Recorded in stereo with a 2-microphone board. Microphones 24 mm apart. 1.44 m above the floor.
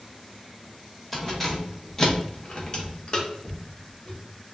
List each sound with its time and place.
1.1 s keys jangling: 10° left (ahead or behind), 1.2 m; by 4.2 s 30° left (ahead or behind), 1.6 m